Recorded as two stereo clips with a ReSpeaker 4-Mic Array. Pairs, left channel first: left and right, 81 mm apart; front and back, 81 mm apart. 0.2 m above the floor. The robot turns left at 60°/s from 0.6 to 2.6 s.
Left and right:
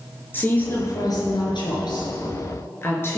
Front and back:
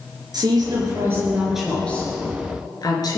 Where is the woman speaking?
150° left, 3.5 m; by 3.2 s 30° left, 3.5 m.